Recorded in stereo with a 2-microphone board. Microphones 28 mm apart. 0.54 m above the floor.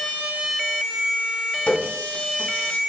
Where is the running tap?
75° left (ahead or behind), 2.5 m.